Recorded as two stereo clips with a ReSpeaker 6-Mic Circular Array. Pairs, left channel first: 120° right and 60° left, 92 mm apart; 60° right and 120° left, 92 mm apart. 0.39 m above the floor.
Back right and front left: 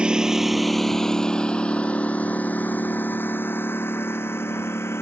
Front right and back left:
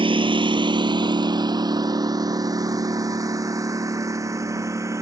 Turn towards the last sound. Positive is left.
turn(degrees=175)